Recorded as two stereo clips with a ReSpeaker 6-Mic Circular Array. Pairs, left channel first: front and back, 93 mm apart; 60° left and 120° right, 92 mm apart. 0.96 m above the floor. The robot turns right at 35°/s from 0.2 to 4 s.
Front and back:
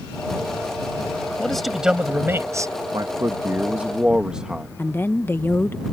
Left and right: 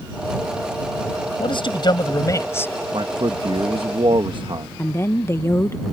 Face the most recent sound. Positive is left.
turn(degrees=40)